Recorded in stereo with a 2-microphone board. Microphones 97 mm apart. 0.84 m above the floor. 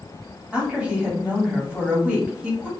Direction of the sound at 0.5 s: 15° right (ahead or behind).